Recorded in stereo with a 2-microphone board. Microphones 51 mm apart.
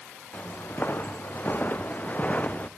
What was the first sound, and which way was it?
Footsteps, 40° left (ahead or behind).